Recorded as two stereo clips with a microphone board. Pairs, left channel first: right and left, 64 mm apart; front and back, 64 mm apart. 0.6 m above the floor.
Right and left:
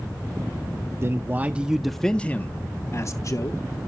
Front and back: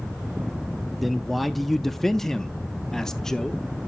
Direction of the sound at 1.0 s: 90° left.